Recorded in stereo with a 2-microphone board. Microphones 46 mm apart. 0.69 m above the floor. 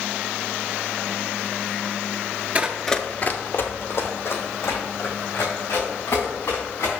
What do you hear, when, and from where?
2.5 s running footsteps: 30° right (ahead or behind), 0.7 m; by 6.9 s 60° left (ahead or behind), 5.5 m